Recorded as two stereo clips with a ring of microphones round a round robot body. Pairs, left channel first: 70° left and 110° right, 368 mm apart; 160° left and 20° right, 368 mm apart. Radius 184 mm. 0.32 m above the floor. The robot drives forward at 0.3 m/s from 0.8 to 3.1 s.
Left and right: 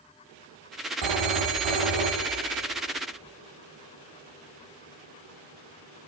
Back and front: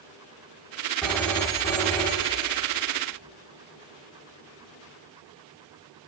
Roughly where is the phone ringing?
Behind right.